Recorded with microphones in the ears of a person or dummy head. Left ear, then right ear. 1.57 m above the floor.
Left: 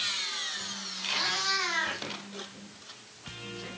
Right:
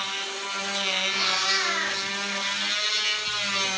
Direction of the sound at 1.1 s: Centre (ahead or behind).